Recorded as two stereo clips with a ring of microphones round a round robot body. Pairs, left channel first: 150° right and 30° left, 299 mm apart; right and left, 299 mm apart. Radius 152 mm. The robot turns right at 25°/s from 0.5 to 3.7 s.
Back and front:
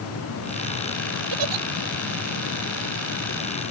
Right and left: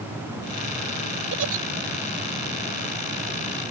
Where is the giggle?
35° left; by 1.6 s 45° left.